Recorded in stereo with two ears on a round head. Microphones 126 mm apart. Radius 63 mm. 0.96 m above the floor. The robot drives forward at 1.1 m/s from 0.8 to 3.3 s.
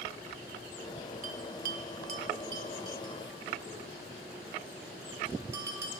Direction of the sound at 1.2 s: 50° right (ahead or behind).